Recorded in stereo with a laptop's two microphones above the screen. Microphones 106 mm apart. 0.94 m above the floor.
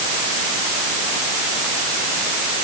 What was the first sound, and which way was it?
Only background noise.